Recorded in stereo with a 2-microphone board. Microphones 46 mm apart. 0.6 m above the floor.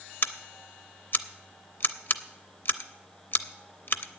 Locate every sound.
0.2 s scissors: 50° left (ahead or behind), 0.5 m